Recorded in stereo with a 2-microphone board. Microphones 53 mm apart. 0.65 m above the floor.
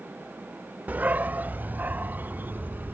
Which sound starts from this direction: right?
A dog barking, at 0.9 s.